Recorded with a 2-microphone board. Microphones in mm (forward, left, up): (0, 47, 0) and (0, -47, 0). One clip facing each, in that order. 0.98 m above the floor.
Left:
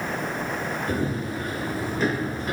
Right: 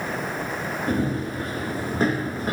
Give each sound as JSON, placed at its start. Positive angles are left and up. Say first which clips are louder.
{"t": 0.9, "sound": "running footsteps", "louder": "right 4 dB", "side_deg": -55, "distance_m": 4.5}